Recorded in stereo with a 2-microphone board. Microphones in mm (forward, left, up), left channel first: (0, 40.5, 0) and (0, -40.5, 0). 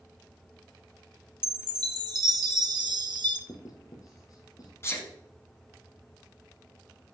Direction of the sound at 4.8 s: 30° left (ahead or behind).